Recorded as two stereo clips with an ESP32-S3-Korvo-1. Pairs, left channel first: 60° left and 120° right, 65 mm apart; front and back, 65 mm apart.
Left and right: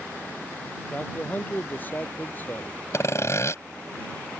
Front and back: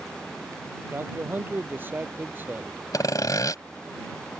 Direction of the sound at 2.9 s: 20° left.